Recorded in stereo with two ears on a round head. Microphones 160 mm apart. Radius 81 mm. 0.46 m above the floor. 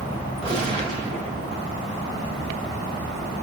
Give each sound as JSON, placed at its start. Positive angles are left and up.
{"t": 0.4, "sound": "a gunshot", "side_deg": -35, "distance_m": 3.0}